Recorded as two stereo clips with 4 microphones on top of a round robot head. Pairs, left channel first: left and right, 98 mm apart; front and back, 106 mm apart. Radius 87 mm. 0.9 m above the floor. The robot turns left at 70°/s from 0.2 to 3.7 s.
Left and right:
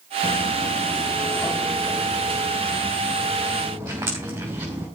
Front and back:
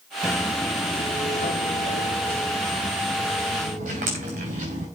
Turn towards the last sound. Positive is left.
turn(degrees=-165)